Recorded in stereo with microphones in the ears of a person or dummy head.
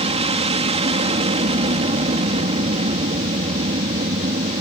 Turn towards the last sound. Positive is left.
turn(degrees=-30)  # may be behind; listen again after turning